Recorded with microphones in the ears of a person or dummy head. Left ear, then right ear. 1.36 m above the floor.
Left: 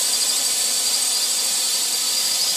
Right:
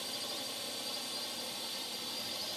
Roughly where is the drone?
Left.